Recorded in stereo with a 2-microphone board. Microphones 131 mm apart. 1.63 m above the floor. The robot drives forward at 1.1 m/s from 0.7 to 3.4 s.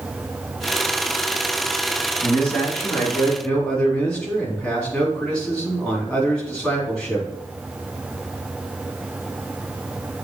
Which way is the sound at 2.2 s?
5° left (ahead or behind).